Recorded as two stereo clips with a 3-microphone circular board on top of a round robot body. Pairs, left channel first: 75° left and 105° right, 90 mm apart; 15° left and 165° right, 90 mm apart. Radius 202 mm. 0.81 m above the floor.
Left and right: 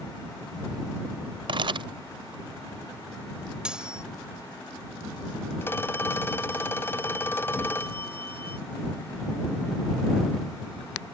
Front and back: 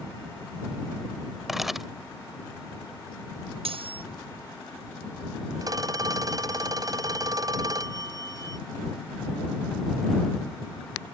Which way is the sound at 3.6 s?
175° left.